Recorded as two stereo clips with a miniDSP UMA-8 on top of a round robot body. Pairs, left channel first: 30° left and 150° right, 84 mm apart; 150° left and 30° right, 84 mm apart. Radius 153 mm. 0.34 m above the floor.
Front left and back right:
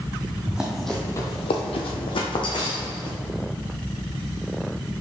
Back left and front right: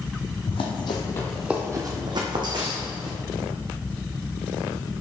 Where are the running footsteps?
130° left, 1.1 m; by 3.2 s 10° right, 2 m.